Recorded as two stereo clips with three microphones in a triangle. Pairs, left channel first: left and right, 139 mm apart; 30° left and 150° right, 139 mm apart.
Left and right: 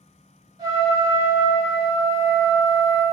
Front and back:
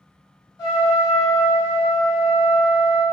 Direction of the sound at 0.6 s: 30° right.